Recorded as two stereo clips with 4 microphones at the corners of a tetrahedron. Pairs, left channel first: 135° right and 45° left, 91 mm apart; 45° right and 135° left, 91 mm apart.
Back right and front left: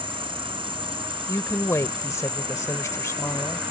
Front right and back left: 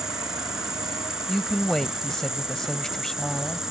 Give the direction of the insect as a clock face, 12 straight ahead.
10 o'clock.